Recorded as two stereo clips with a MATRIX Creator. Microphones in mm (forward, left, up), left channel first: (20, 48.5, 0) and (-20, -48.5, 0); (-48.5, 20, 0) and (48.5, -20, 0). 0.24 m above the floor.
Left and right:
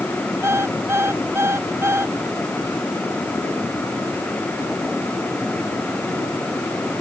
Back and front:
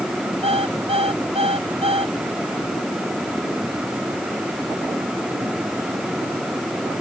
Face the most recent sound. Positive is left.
turn(degrees=-45)